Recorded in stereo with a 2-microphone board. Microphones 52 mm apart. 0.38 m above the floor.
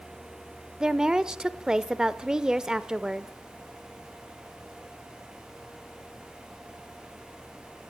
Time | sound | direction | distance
0.8 | a woman speaking | 15° right (ahead or behind) | 0.9 m